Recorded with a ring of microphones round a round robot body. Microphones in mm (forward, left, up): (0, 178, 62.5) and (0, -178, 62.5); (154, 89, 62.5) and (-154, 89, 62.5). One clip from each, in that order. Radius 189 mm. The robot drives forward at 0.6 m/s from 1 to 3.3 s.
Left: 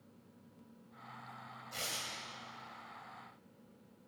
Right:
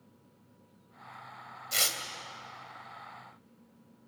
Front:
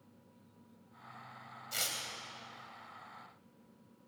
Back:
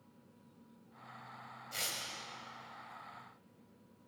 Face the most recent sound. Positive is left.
turn(degrees=-95)